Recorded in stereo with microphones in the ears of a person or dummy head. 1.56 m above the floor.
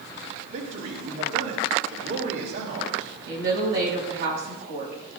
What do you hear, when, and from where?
0.5 s a man speaking: 70° right (ahead or behind), 4 m
3.3 s a woman speaking: 55° right (ahead or behind), 8 m